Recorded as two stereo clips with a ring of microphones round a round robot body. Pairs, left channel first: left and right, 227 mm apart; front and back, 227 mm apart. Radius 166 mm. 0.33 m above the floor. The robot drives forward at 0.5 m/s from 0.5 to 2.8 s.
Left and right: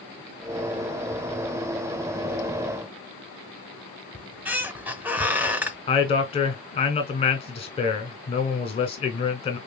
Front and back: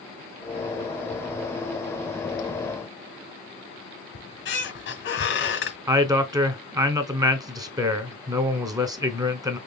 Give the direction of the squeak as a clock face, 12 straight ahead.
12 o'clock.